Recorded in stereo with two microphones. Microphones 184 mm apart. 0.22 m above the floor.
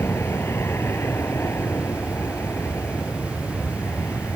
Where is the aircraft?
15° left (ahead or behind).